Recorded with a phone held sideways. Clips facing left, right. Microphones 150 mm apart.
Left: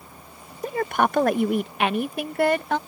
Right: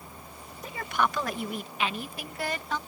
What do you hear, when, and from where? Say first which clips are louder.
0.6 s a woman speaking: left 6 dB; 50° left (ahead or behind); by 2.8 s 60° left (ahead or behind)